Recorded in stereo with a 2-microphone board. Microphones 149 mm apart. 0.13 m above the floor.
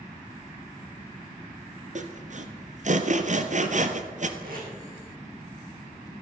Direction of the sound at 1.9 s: 55° right (ahead or behind).